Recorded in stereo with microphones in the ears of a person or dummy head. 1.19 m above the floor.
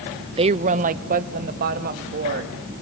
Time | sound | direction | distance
0.4 | a woman speaking | 25° right (ahead or behind) | 0.5 m